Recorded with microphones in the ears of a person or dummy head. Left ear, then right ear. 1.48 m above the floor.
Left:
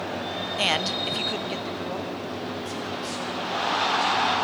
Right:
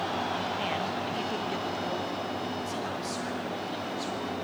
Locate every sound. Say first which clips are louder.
0.6 s a man speaking: left 7 dB; 70° left (ahead or behind), 0.7 m; by 4.3 s 10° right (ahead or behind), 4.5 m